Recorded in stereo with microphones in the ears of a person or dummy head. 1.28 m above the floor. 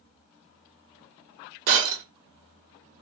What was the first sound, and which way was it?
Breaking glass, 45° right (ahead or behind).